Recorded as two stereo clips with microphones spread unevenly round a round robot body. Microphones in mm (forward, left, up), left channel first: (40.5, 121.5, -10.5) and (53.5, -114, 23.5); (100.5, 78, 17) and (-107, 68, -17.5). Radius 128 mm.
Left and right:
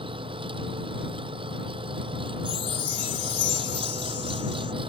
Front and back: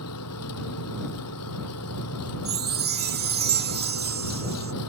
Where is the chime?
160° left.